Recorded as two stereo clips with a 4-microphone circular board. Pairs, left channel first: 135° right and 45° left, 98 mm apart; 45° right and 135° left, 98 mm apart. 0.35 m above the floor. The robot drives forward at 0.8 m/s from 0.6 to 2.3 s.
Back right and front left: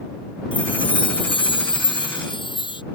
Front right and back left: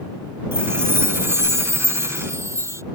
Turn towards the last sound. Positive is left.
turn(degrees=-165)